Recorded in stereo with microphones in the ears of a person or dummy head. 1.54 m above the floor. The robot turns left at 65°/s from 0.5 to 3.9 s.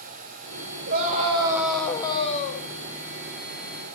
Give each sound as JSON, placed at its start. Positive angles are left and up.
{"t": 0.9, "sound": "a scream", "azimuth_deg": -135, "distance_m": 6.5}